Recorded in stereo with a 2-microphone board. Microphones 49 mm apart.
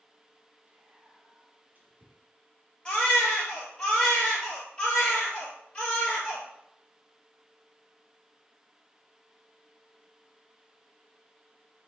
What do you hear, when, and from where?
0.7 s whispering: 40° right (ahead or behind), 1.4 m
2.9 s a baby crying: 25° left (ahead or behind), 1.6 m